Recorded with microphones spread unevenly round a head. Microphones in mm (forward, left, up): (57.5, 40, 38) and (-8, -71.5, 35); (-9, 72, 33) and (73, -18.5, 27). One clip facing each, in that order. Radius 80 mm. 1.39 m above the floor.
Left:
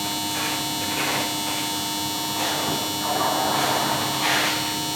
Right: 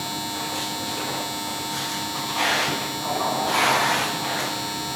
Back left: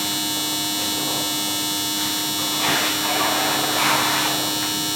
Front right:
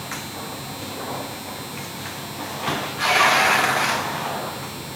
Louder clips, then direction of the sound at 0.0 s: Left 2 dB, back left 5 dB; 135° left.